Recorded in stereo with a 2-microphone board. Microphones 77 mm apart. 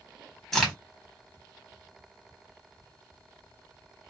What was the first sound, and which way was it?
A crack, 5° left (ahead or behind).